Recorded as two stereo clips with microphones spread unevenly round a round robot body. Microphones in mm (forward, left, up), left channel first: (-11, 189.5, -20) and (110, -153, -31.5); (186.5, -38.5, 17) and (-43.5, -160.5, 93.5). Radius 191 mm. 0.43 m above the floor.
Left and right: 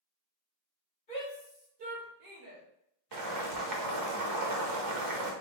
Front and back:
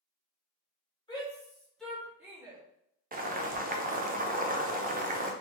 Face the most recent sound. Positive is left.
turn(degrees=-80)